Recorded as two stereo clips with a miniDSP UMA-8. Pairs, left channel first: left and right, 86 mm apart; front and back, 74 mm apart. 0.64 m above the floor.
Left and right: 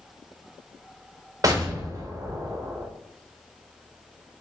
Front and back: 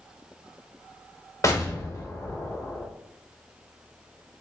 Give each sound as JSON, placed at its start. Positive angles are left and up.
{"t": 1.4, "sound": "an explosion", "azimuth_deg": -45, "distance_m": 0.8}